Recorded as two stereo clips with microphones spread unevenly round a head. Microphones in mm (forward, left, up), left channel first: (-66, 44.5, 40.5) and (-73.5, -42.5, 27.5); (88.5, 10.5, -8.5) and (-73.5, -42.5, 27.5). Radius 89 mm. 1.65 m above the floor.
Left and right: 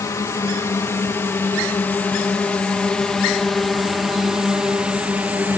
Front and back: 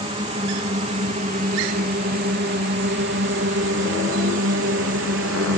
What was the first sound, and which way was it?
A drone, 135° left.